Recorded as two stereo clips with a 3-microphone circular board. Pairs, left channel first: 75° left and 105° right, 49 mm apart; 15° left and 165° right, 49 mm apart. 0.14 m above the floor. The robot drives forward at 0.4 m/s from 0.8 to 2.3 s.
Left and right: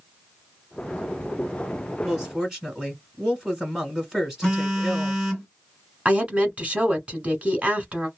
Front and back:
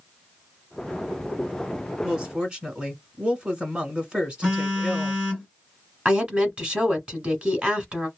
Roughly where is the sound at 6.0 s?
Behind right.